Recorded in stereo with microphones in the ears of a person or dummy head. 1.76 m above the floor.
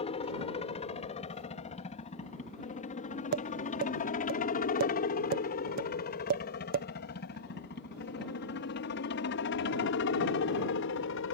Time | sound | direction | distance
0.0 | a helicopter | 25° left (ahead or behind) | ?
3.3 | tapping | 50° right (ahead or behind) | ?